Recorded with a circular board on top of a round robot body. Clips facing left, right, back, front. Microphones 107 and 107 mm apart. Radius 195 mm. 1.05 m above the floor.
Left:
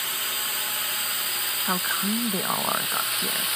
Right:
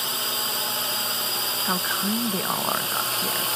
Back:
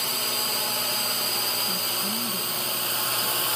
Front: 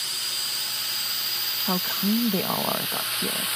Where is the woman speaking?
Straight ahead.